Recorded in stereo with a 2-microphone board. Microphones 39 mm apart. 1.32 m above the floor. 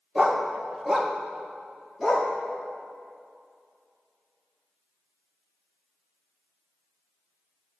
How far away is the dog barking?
About 0.7 m.